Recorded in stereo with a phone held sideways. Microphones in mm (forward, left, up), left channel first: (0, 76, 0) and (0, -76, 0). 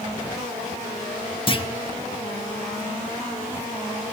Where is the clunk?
35° left (ahead or behind), 2 m.